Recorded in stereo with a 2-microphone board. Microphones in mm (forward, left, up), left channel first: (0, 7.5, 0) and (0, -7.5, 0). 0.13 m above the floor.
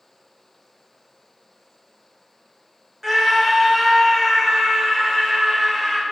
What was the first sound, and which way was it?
A scream, 25° right (ahead or behind).